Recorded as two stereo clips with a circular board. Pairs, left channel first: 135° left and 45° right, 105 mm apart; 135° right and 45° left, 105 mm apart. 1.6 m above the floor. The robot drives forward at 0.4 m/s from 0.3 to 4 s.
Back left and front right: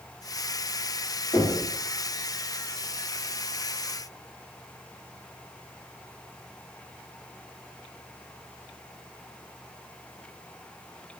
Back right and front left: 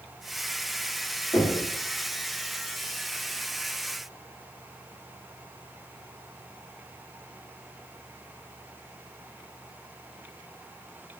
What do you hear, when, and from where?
1.3 s knocking: 165° right, 1.7 m